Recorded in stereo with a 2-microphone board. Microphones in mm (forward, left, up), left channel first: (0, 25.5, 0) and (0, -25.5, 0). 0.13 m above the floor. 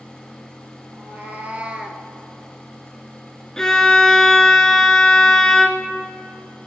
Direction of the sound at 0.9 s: 40° right (ahead or behind).